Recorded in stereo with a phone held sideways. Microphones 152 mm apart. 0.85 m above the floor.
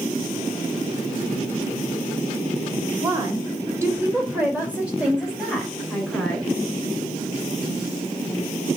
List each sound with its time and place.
3.0 s a woman speaking: 25° right (ahead or behind), 3.5 m; by 6.5 s 5° left (ahead or behind), 4 m